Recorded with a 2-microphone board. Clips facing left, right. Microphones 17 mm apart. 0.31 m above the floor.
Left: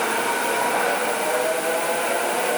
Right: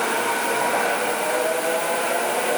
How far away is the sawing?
I don't hear sawing.